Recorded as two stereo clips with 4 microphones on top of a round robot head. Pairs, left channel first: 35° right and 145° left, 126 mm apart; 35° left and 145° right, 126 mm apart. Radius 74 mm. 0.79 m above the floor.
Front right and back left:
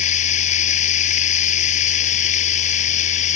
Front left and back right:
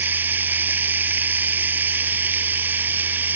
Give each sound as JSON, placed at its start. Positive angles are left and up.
{"t": 0.0, "sound": "running water", "azimuth_deg": -70}